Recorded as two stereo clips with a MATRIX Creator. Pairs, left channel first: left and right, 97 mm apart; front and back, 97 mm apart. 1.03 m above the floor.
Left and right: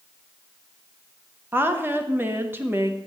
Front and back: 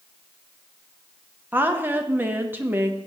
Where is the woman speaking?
130° right, 0.8 m.